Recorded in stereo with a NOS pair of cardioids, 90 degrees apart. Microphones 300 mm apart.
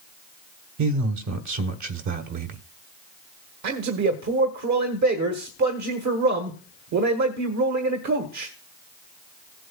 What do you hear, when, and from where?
0.8 s a man speaking: 70° right, 1.3 m
3.6 s a man speaking: 65° right, 1.4 m